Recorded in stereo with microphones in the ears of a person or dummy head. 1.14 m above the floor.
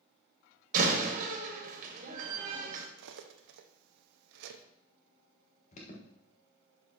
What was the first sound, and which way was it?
A door slam, 50° right (ahead or behind).